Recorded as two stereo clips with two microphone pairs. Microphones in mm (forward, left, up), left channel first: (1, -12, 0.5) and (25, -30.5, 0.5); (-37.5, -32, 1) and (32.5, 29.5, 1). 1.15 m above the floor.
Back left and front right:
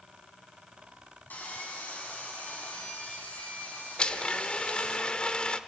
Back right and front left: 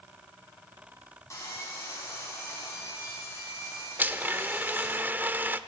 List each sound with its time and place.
1.3 s sawing: 165° left, 9 m
4.0 s a blender: 100° left, 0.9 m